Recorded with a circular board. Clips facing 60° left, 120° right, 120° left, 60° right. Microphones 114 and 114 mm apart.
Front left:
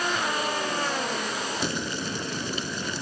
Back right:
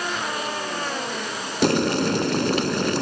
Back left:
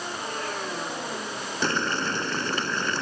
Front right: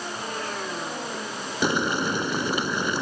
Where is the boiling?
135° right.